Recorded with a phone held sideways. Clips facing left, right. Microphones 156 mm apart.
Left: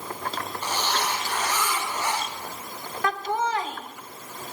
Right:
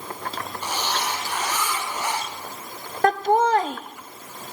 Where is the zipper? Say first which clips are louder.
Even; 10° right (ahead or behind), 3 m.